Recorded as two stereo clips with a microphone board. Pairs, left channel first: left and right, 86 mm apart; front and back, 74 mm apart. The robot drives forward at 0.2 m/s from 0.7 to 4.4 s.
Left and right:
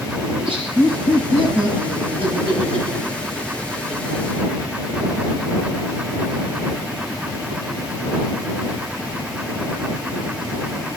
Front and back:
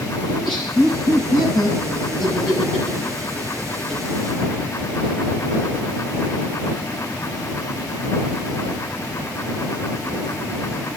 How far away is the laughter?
About 9 m.